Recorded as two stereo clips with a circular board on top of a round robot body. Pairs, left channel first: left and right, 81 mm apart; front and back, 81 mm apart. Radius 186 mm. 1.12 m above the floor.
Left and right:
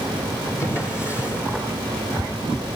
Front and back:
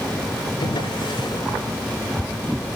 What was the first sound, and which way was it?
A drawer, 35° left.